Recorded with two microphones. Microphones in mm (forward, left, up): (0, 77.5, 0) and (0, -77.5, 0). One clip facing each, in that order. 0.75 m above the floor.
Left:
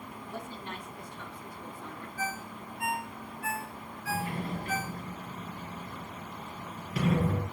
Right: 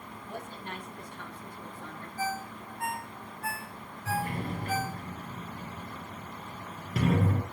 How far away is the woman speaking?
About 7 m.